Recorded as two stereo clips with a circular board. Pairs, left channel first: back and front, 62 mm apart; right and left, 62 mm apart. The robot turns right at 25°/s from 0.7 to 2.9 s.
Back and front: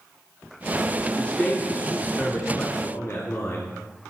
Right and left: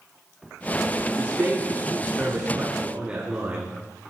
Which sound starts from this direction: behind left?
A man speaking, at 1.2 s.